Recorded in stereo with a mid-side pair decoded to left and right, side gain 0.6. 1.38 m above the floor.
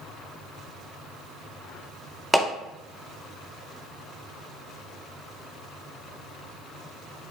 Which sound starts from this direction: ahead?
A clap, at 2.3 s.